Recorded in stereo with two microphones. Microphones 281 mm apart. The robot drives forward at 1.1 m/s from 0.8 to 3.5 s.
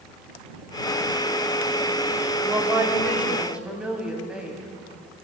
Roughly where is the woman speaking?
Centre.